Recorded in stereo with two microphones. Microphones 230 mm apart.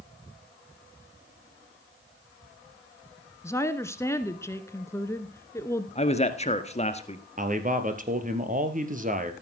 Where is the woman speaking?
10° left (ahead or behind), 1.1 m.